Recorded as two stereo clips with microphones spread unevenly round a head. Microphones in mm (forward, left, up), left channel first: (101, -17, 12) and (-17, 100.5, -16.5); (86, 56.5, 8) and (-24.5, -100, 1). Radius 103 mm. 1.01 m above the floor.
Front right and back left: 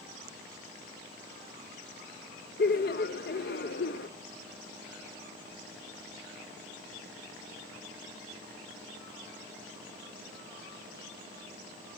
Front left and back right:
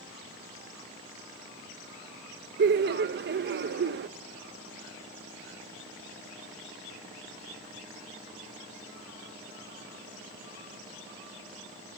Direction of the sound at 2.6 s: 95° right.